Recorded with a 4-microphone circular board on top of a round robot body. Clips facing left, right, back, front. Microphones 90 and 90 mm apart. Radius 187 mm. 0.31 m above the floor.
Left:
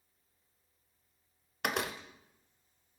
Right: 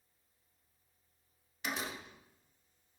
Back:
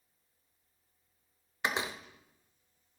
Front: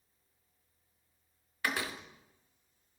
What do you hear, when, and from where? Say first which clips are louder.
1.6 s a door slam: left 5 dB, back 1 dB; 110° left, 1.0 m